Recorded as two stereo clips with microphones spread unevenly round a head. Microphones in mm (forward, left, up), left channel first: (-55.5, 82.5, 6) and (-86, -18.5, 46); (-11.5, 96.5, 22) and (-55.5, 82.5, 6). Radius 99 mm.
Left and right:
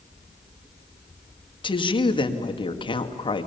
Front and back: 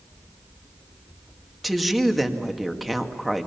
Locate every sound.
1.6 s a woman speaking: 110° left, 2 m